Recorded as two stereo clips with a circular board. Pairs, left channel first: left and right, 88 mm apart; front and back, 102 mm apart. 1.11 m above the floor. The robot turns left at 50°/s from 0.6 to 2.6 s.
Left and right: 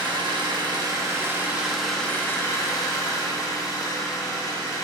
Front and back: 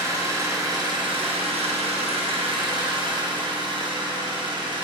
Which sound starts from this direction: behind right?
An engine running, at 0.0 s.